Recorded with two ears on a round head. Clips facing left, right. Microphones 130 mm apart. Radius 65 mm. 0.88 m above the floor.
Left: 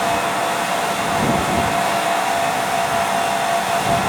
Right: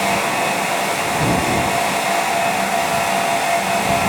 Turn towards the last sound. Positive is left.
No sound to turn to.